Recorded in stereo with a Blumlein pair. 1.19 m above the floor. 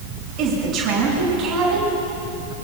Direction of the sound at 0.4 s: 30° right.